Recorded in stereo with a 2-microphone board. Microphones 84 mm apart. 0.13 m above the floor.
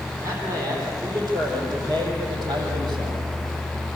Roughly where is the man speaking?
Right.